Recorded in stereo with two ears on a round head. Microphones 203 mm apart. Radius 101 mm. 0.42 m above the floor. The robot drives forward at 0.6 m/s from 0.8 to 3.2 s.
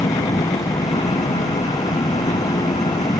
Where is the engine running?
15° left (ahead or behind).